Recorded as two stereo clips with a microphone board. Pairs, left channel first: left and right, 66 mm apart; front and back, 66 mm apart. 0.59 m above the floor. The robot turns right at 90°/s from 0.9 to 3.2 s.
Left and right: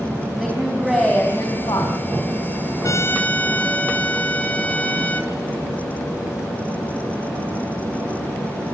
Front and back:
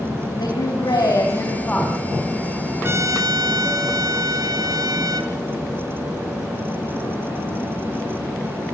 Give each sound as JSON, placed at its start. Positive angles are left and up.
{"t": 0.4, "sound": "a woman speaking", "azimuth_deg": -5, "distance_m": 4.5}
{"t": 2.8, "sound": "a trumpet", "azimuth_deg": 125, "distance_m": 2.0}